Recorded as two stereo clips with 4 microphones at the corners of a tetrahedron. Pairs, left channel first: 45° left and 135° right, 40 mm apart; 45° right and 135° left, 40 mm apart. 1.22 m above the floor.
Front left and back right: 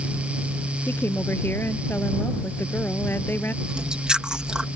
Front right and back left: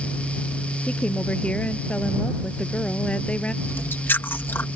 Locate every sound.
0.9 s a woman speaking: 15° left
3.6 s chewing: 70° right